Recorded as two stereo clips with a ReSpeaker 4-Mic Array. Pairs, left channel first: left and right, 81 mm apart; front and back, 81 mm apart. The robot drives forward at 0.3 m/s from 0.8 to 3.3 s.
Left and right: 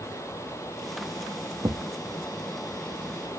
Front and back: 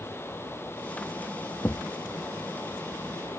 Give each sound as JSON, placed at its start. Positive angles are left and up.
{"t": 1.6, "sound": "a thud", "azimuth_deg": -55}